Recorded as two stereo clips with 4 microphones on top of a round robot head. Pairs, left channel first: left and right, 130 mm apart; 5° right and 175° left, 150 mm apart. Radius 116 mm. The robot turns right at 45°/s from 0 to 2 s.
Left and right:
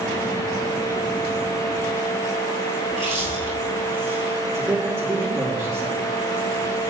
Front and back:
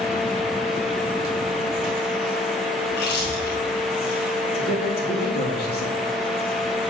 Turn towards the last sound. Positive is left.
turn(degrees=5)